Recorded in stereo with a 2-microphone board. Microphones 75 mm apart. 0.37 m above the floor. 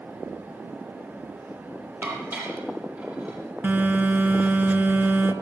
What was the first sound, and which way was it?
Dishes clattering, 30° right (ahead or behind).